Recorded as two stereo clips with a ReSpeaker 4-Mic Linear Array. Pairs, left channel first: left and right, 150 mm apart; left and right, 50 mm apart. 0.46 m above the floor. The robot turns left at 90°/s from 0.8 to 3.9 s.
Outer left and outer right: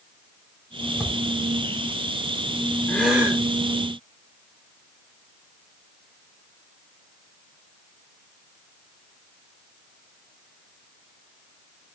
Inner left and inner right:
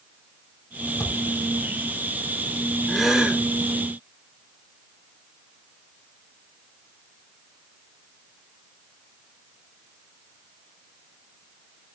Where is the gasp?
20° left, 4.5 m; by 3.4 s 30° right, 4.5 m.